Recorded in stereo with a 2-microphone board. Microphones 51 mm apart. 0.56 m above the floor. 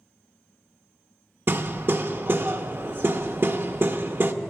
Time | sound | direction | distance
1.5 | hammering | 45° right (ahead or behind) | 0.6 m